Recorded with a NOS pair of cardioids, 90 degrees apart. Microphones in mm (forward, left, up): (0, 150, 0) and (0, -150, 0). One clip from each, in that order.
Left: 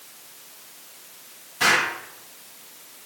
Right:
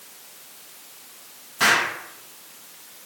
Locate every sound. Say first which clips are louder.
1.6 s an explosion: right 1 dB; 25° right, 1.1 m